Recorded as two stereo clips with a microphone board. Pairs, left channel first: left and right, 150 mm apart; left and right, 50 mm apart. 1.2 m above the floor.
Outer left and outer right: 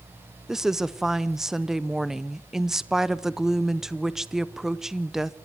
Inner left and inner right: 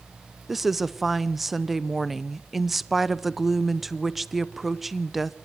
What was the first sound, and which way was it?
A woman speaking, centre (ahead or behind).